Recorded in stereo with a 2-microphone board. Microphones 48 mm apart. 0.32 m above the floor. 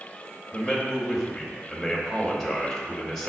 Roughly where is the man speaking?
Centre.